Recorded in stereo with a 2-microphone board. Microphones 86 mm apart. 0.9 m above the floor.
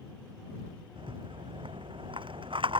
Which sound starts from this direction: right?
A rattle, at 1.0 s.